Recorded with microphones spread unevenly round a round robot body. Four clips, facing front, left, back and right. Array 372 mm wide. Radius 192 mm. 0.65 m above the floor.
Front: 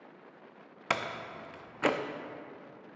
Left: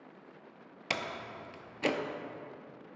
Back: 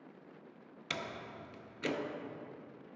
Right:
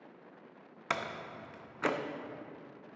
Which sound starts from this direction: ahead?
A door slam, at 0.9 s.